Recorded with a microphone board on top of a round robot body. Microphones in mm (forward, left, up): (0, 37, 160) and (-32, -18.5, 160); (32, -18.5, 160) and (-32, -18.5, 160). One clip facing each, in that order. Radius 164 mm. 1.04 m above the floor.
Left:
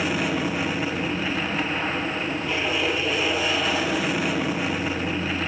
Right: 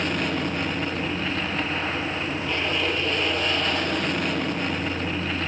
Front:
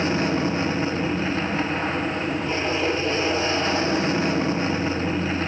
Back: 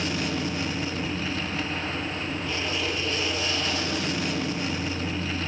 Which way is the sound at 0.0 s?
20° right.